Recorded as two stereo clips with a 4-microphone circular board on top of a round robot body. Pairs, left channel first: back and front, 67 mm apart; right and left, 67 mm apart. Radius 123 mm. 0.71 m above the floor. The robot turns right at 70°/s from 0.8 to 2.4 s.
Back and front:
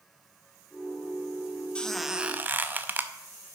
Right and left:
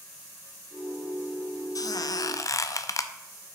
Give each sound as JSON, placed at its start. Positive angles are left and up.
{"t": 1.8, "sound": "a squeak", "azimuth_deg": -110, "distance_m": 0.7}